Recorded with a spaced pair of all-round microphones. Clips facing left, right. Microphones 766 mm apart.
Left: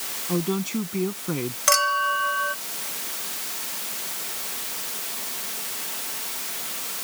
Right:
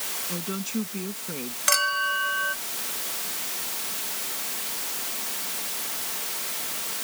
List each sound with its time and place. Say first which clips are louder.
0.3 s a woman speaking: left 7 dB; 80° left
1.7 s a clink: left 6 dB; 60° left (ahead or behind)